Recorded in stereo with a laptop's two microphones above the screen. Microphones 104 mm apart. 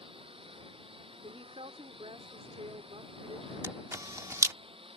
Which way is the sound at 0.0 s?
60° right (ahead or behind).